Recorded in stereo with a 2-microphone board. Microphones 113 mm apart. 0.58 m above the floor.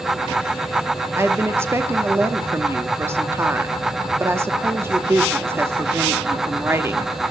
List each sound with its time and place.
1.2 s a woman speaking: 20° right (ahead or behind), 0.9 m